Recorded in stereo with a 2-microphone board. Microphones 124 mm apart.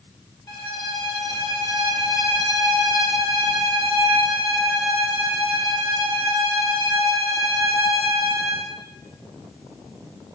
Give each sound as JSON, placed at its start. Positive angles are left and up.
{"t": 0.5, "sound": "a violin", "side_deg": 35, "distance_m": 0.9}